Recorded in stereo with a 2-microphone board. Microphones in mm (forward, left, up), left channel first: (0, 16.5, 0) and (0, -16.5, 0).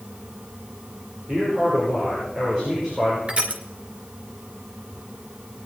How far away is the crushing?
About 2.5 m.